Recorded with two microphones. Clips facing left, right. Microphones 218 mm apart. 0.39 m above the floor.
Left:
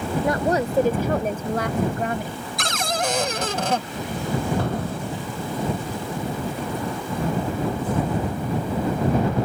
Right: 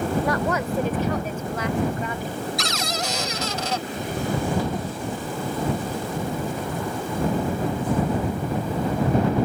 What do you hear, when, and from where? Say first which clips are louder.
0.2 s a woman speaking: left 2 dB; 25° left (ahead or behind); by 2.5 s 60° left (ahead or behind)
2.6 s a cupboard door: left 2 dB; 55° left (ahead or behind)
4.6 s an explosion: left 1 dB; 60° left (ahead or behind)